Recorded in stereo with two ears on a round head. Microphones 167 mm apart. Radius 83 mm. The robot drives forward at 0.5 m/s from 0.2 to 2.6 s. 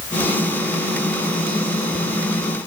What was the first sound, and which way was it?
Only background noise.